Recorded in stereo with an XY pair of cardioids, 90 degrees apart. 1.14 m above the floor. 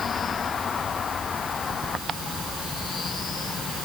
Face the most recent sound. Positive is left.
No sound to turn to.